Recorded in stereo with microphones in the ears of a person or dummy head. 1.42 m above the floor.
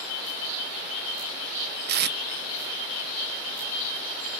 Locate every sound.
1.9 s tape being pulled: 55° right (ahead or behind), 0.7 m